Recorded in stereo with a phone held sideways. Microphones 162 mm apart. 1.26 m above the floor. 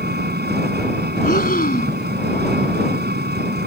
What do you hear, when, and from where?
0.0 s an engine running: 85° right
1.2 s breathing: 65° left (ahead or behind)